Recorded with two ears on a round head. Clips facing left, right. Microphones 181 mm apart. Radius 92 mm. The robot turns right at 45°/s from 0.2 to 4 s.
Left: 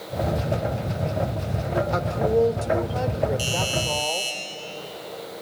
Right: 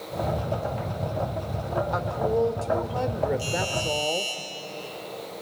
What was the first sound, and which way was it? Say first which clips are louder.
A woman speaking: left 4 dB; 125° left.